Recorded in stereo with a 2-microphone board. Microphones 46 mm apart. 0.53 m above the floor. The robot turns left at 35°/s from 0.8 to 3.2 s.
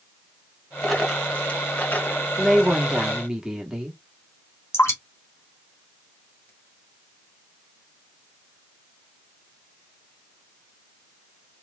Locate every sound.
0.8 s a dropped coin: 5° left (ahead or behind), 2.5 m; by 2.2 s 50° left (ahead or behind), 2.5 m
2.4 s a woman speaking: centre (ahead or behind), 1.3 m; by 4.0 s 15° right (ahead or behind), 1.3 m
4.7 s dripping: 70° left (ahead or behind), 2.5 m